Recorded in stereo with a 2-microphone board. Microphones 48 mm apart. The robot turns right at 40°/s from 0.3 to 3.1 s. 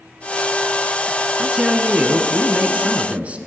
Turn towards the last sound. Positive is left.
turn(degrees=-30)  # may be behind; listen again after turning